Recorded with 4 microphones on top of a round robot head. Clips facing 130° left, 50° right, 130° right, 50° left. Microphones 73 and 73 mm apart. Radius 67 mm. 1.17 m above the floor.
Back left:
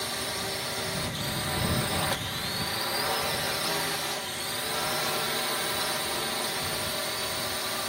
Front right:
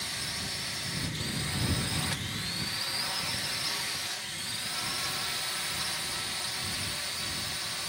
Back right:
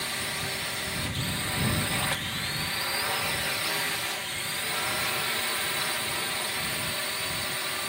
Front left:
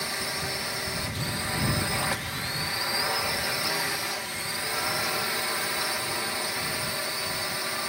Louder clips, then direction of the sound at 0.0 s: Back left 6 dB, front left 1 dB; 120° left.